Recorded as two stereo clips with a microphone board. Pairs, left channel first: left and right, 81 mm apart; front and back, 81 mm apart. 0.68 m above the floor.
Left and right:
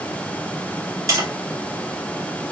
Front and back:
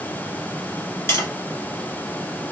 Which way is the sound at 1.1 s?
50° right.